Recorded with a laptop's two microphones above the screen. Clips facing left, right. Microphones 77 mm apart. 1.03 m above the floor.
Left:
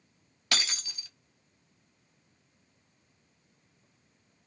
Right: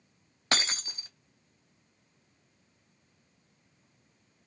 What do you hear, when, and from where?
0.5 s breaking glass: 35° right (ahead or behind), 0.6 m